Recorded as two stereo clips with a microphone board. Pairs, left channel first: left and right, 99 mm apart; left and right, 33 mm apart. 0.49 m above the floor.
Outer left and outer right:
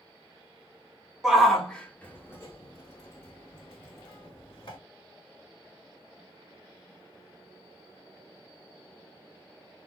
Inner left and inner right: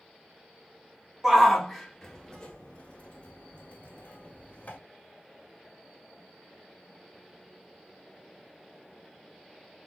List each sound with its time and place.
1.2 s a shout: 5° right (ahead or behind), 1.0 m; by 4.8 s 60° left (ahead or behind), 1.7 m